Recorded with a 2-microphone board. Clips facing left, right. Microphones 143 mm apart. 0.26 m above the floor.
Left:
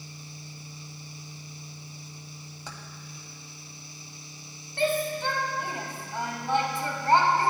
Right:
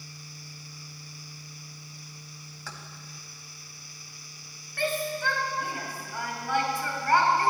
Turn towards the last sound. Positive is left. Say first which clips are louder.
# left 3 dB
turn(degrees=25)  # may be behind; listen again after turning